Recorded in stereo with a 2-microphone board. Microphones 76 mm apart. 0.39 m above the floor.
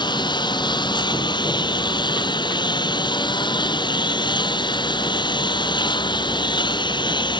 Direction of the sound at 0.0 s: 80° left.